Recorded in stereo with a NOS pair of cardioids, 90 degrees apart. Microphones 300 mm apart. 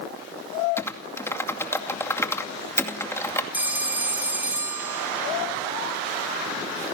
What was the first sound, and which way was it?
Typing on a keyboard, 10° left.